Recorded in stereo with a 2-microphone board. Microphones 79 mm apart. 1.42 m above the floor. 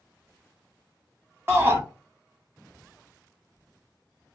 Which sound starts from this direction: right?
A shout, at 1.5 s.